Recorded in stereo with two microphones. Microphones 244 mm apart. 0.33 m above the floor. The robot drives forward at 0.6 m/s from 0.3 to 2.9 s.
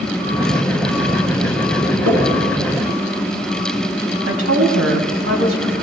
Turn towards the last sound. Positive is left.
turn(degrees=-60)  # may be behind; listen again after turning